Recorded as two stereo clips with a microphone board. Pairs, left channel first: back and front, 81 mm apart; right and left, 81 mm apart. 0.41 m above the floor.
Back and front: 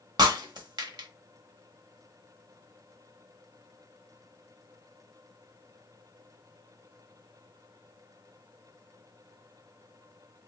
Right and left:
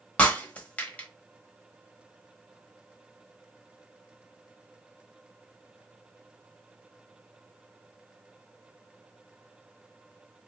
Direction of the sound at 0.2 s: 20° right.